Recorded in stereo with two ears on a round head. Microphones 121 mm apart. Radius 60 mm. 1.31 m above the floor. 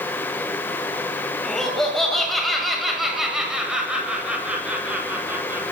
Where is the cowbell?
I don't hear a cowbell.